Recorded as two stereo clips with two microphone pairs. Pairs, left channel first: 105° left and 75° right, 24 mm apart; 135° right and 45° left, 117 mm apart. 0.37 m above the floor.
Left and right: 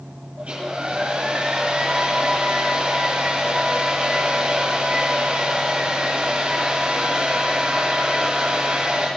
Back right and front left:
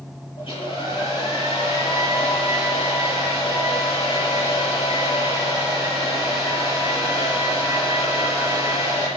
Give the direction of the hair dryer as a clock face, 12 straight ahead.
3 o'clock.